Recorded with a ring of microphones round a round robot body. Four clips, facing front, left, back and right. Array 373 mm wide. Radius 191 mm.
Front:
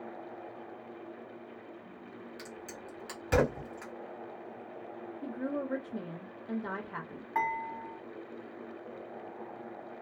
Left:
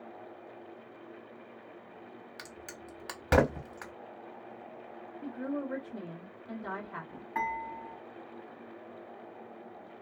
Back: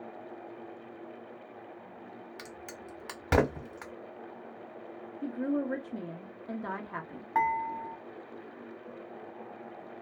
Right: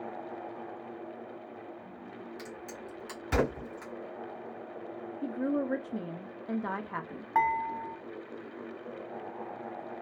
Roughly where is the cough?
I don't hear a cough.